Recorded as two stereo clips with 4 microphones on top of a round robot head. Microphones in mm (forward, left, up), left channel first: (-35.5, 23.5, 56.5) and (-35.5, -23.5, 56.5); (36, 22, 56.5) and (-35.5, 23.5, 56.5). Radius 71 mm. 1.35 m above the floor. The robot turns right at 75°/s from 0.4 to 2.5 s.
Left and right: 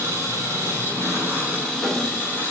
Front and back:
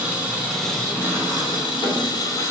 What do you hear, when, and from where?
0.0 s an engine running: 105° right, 3 m; by 2.5 s 55° left, 3 m